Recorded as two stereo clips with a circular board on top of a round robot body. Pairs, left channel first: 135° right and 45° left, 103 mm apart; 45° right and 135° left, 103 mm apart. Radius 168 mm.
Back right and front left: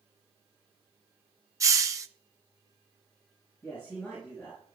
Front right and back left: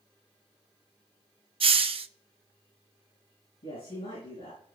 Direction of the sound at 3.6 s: 55° right.